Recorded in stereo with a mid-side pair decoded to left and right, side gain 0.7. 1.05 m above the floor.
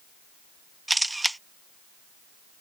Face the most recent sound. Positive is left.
turn(degrees=-5)